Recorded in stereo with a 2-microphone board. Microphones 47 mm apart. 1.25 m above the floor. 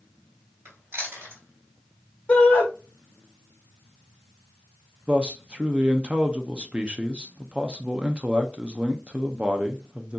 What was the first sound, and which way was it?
Chewing, 65° right (ahead or behind).